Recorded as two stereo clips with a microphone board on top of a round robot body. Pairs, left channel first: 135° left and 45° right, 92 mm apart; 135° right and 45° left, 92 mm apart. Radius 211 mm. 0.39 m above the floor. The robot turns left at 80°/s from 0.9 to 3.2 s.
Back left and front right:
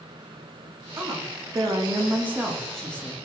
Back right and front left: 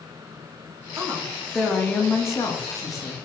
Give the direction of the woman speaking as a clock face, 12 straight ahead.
12 o'clock.